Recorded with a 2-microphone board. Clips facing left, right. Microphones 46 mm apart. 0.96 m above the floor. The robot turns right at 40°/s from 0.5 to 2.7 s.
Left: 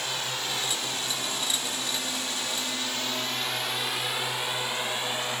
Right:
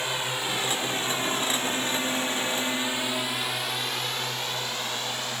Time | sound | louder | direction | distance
0.0 | a drone | right 3 dB | 20° right (ahead or behind) | ?